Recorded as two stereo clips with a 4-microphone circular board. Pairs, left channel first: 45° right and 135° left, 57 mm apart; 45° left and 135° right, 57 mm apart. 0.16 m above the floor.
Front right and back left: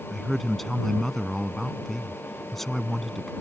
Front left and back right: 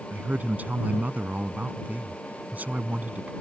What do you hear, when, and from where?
0.1 s a man speaking: 130° right